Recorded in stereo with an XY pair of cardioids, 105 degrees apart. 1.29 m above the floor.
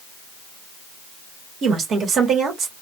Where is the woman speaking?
60° right, 1.1 m.